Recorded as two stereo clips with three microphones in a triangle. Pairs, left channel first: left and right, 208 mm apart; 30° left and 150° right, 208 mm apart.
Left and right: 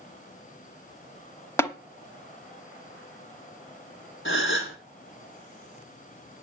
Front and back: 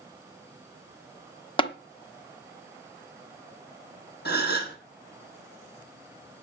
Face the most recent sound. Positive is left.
turn(degrees=70)